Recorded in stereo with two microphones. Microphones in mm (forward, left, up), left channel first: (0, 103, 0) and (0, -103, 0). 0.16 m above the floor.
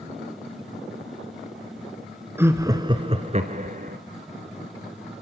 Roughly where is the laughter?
Centre.